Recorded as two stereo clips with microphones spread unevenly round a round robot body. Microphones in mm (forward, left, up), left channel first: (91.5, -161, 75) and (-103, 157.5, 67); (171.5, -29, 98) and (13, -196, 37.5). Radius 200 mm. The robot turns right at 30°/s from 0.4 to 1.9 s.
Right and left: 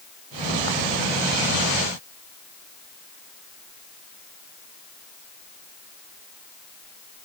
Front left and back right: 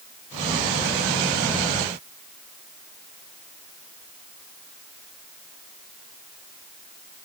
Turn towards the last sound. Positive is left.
No sound to turn to.